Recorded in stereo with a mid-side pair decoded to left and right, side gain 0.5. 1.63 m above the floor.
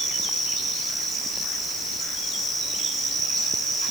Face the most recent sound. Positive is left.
No sound to turn to.